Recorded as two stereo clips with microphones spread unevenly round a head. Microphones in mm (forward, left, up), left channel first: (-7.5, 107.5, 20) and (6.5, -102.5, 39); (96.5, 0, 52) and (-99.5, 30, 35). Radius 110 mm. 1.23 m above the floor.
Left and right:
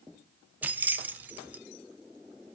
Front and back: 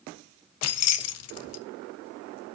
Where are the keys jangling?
5° right, 0.9 m.